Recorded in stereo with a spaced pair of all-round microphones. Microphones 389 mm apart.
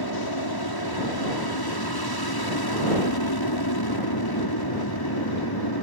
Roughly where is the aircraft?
Left.